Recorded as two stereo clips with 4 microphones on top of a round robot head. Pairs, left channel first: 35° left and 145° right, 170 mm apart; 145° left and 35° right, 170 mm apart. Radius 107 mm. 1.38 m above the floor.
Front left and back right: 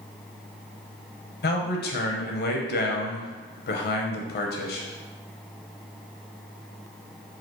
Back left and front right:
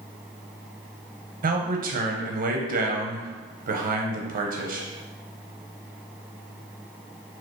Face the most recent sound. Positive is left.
turn(degrees=5)